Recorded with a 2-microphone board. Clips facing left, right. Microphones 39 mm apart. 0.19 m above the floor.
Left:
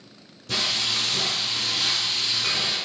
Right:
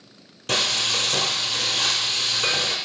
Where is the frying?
75° right (ahead or behind), 1.0 m.